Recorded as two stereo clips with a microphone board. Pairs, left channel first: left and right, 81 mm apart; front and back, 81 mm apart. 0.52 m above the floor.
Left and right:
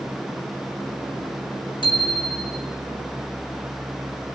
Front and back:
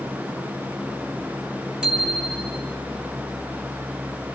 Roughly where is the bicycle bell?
Left.